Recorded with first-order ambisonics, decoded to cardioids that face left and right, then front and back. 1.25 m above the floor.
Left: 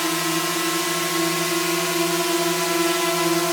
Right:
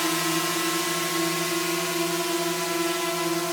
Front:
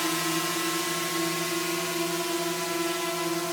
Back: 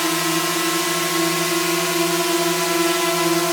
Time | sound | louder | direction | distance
0.0 | a drone | left 2 dB, back 7 dB | 165° left | ?